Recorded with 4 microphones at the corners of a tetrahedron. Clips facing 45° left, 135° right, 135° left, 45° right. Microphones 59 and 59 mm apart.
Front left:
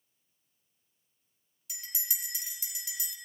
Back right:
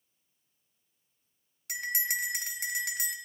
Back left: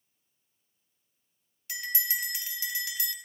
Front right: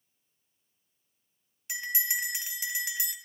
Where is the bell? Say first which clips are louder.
Back right 13 dB, front right 2 dB; 115° right, 1.2 m.